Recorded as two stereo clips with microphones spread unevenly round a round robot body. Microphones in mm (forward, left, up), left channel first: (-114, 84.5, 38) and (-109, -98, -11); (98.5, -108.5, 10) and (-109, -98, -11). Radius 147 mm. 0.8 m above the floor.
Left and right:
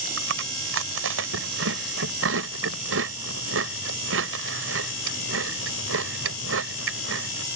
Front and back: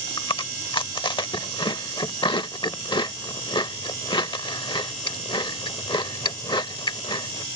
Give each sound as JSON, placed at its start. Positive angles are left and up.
{"t": 0.2, "sound": "chewing", "azimuth_deg": -70}